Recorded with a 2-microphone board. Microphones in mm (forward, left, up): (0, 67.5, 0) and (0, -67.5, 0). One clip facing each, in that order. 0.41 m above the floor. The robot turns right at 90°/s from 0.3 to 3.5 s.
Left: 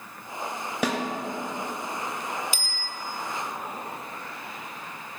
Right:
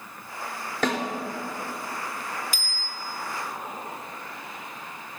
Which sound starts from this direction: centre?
A snare drum, at 0.8 s.